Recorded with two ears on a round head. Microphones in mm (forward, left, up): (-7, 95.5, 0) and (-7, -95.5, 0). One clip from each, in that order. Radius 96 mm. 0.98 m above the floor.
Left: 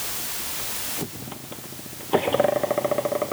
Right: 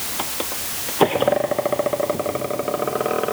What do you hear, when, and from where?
Only background noise.